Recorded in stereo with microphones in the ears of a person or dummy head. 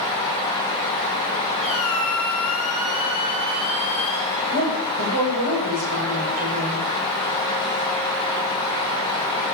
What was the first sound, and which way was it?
A squeak, centre (ahead or behind).